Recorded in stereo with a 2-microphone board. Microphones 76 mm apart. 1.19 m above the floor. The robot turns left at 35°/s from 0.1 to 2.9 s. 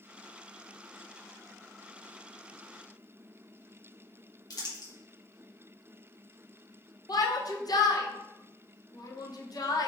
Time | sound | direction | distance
4.5 | crumpling | 55° left (ahead or behind) | 1.0 m
7.1 | a shout | 60° left (ahead or behind) | 0.6 m